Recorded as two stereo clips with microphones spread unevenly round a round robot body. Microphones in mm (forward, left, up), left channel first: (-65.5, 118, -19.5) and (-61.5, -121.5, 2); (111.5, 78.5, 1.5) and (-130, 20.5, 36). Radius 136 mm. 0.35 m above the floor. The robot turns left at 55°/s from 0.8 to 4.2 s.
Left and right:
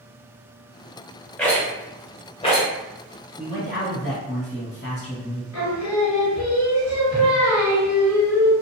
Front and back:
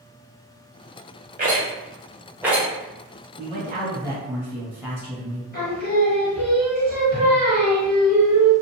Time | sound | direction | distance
1.4 | a rattle | 165° left | 1.0 m
3.4 | a man speaking | 155° left | 1.8 m
5.5 | singing | 65° left | 1.4 m